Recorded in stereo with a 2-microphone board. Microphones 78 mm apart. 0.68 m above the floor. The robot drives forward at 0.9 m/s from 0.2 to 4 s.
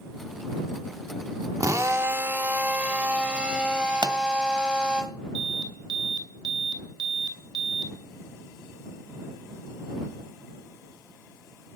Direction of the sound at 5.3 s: 70° right (ahead or behind).